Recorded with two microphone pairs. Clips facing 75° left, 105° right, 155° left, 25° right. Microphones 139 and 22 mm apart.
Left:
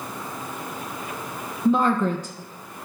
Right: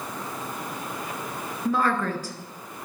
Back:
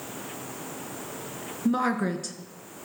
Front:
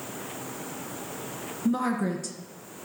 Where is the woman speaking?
115° left, 1.2 m.